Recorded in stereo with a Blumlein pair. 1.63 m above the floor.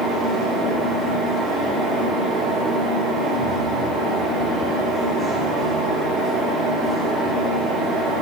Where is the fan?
5° right, 1.0 m.